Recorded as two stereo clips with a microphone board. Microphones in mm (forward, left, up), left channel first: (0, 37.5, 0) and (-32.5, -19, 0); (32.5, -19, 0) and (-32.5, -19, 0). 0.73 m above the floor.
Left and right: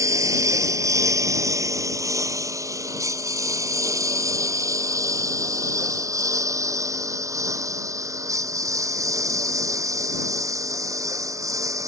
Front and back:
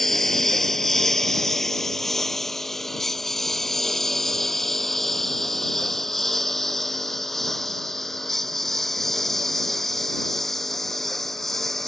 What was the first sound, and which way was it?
A lawn mower, 90° right.